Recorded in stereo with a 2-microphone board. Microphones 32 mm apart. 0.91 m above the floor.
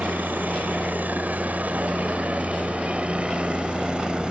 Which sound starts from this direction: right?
A helicopter, at 0.0 s.